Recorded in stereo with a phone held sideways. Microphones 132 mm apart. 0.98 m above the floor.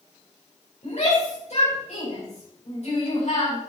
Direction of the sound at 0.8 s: 65° left (ahead or behind).